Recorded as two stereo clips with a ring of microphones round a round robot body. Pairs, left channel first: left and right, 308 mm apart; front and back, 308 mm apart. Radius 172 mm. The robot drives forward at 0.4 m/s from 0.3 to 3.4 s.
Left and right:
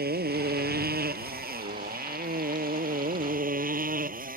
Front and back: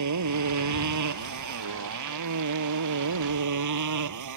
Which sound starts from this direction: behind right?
A motorcycle, at 0.0 s.